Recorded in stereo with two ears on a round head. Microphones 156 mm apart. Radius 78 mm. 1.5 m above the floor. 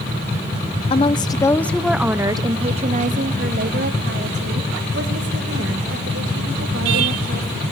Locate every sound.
0.9 s a woman speaking: 35° left (ahead or behind), 1.0 m; by 7.6 s 80° right, 3.5 m